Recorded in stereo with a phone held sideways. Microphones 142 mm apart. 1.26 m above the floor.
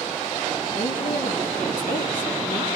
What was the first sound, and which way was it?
A woman speaking, 80° left.